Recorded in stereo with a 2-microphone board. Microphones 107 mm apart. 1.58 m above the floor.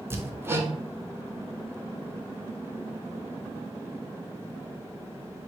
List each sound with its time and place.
0.1 s hammering: 20° right (ahead or behind), 0.6 m